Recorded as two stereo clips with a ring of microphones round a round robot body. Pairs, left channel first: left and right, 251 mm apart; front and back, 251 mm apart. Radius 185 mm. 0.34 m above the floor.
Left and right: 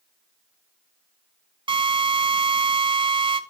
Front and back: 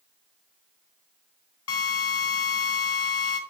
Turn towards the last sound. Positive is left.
turn(degrees=-20)